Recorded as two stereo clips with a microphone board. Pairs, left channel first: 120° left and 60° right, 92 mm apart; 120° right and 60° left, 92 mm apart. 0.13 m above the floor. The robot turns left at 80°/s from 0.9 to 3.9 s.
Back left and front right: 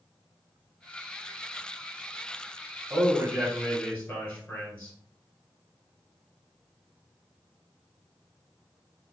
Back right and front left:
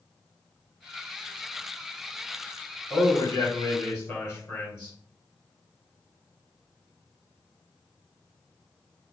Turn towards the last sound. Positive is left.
turn(degrees=-170)